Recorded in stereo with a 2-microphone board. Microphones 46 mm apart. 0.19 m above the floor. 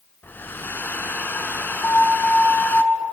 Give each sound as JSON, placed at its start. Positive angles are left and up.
{"t": 0.2, "sound": "a hair dryer", "side_deg": 45, "distance_m": 0.9}
{"t": 1.8, "sound": "an alarm", "side_deg": 50, "distance_m": 8.0}